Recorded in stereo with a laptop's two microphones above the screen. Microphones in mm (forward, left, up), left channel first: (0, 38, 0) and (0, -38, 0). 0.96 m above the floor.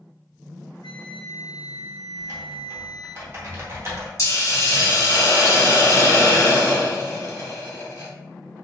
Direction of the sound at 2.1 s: 35° right (ahead or behind).